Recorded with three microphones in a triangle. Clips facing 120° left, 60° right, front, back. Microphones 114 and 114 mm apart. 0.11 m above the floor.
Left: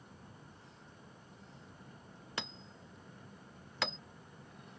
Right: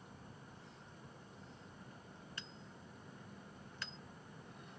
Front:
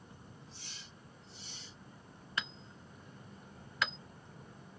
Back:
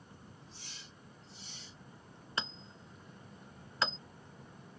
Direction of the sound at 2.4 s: 120° left.